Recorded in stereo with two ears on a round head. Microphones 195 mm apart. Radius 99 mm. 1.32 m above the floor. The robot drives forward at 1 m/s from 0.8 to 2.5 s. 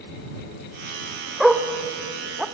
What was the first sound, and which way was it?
A dog barking, centre (ahead or behind).